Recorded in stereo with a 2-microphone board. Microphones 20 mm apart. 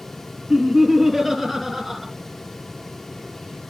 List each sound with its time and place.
0.5 s laughter: 10° left (ahead or behind), 2.5 m